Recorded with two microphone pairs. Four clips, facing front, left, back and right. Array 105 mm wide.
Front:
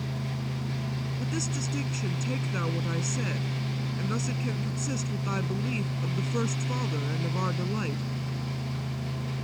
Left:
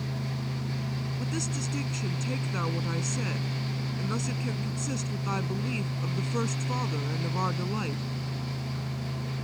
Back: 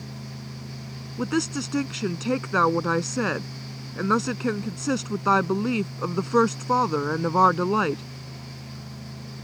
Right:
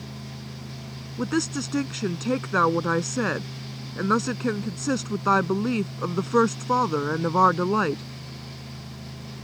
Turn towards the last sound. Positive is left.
turn(degrees=-145)